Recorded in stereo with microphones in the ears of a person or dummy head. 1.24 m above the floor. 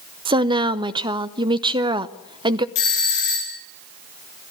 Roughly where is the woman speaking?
Right.